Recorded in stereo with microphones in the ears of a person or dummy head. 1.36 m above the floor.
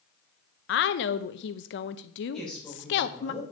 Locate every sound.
0.7 s a woman speaking: 60° left (ahead or behind), 0.6 m
2.3 s a woman speaking: 5° left (ahead or behind), 5.5 m